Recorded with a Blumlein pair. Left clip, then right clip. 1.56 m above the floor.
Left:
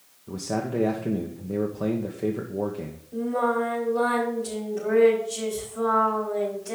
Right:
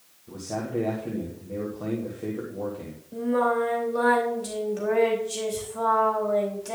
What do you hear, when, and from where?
0.3 s a man speaking: 20° left, 1.3 m
3.1 s singing: 70° right, 4 m